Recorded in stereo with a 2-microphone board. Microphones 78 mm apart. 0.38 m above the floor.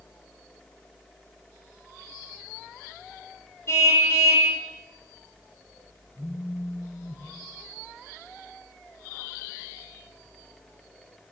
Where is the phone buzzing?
30° left (ahead or behind), 4.5 m.